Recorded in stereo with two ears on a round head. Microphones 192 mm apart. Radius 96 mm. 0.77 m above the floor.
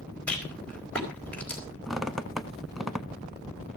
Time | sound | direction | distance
0.3 | a rattle | 5° left (ahead or behind) | 4 m
1.9 | a squeak | centre (ahead or behind) | 0.7 m